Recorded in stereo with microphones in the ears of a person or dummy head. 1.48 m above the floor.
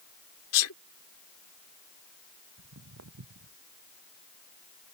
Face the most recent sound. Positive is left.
turn(degrees=-80)